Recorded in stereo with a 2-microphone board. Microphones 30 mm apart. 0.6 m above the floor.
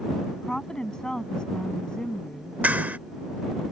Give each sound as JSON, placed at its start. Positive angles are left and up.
{"t": 0.3, "sound": "a woman speaking", "side_deg": 25}
{"t": 2.6, "sound": "a clap", "side_deg": -70}